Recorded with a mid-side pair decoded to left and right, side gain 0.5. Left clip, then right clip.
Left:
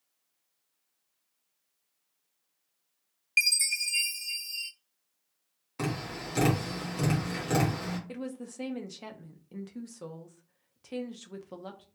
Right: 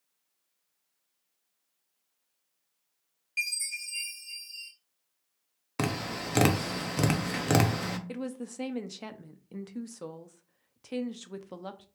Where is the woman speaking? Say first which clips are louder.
Right 2 dB; 20° right, 0.6 m.